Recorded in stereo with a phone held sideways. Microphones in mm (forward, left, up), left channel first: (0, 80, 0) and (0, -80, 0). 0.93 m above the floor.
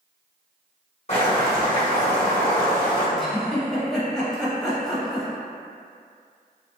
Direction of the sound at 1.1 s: 45° left (ahead or behind).